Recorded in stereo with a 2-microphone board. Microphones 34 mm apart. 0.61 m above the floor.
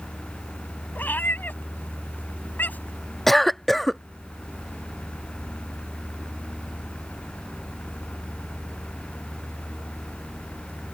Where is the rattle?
I don't hear a rattle.